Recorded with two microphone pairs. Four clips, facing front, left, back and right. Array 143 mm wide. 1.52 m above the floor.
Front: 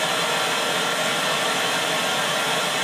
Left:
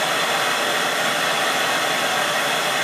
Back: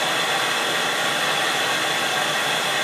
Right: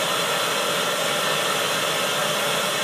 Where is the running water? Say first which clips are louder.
Left 3 dB, even; 95° left, 2.5 m.